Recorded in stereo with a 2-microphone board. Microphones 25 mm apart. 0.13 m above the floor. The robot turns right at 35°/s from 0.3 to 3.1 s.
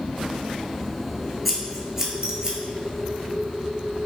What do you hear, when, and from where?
1.4 s scissors: centre (ahead or behind), 0.6 m; by 2.6 s 35° right (ahead or behind), 0.6 m